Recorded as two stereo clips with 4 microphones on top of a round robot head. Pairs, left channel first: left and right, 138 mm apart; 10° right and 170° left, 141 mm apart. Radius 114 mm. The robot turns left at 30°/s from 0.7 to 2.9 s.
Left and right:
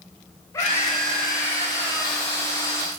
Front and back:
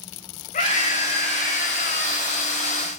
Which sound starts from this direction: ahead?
A scream, at 0.5 s.